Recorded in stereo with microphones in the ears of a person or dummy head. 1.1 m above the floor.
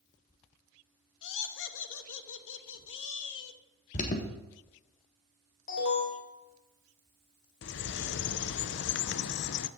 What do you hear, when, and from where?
1.2 s laughter: 70° left (ahead or behind), 1.2 m
3.9 s an alarm: 40° left (ahead or behind), 1.3 m
5.7 s an alarm: 65° left (ahead or behind), 3 m
7.6 s a bird: 55° left (ahead or behind), 0.5 m